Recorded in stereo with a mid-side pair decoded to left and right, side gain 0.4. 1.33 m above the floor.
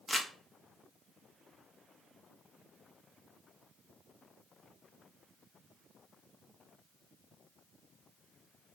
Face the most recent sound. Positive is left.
turn(degrees=5)